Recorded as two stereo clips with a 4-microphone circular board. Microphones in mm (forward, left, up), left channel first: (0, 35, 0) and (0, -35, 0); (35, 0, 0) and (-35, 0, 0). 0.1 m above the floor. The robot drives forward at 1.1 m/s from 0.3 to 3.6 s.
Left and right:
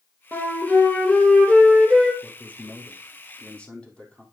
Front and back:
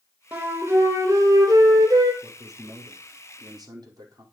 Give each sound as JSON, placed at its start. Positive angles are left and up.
{"t": 0.3, "sound": "a flute", "azimuth_deg": 130, "distance_m": 1.5}
{"t": 2.2, "sound": "a man speaking", "azimuth_deg": 150, "distance_m": 2.0}